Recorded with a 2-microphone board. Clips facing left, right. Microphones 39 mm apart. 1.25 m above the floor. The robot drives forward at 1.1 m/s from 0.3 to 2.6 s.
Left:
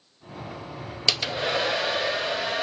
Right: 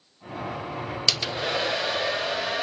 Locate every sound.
1.1 s a hair dryer: 10° left (ahead or behind), 0.6 m; by 2.6 s 5° left (ahead or behind), 2 m